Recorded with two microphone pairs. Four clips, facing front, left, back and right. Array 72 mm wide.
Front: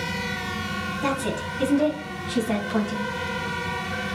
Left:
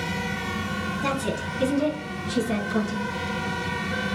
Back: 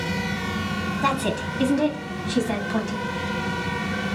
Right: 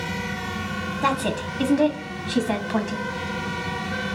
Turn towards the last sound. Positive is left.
turn(degrees=-90)